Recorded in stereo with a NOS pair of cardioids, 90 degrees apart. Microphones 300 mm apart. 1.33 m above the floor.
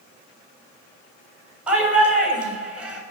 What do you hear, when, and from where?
1.7 s a shout: 5° right, 6.5 m